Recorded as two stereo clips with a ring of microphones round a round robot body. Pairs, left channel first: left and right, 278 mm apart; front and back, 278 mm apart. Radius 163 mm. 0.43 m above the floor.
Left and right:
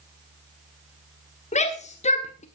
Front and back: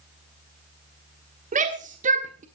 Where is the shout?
140° left, 1.3 m.